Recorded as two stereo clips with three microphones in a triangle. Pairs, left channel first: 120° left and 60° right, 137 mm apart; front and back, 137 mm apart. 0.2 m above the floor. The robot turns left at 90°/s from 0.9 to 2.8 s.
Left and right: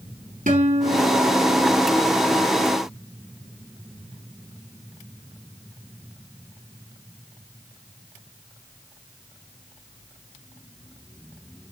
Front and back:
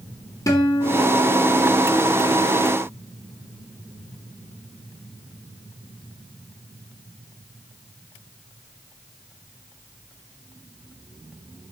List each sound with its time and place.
0.5 s a guitar: 65° right, 5 m; by 2.0 s 160° right, 5 m